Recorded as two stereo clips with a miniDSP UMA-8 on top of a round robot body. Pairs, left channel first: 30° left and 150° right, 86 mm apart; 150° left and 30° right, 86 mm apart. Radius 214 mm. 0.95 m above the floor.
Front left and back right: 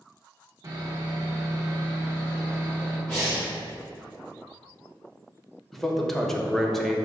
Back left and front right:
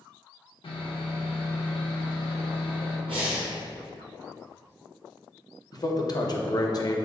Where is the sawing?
160° left, 1.6 m.